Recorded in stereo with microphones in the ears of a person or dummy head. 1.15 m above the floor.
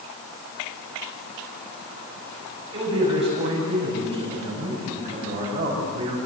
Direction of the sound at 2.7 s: 30° right (ahead or behind).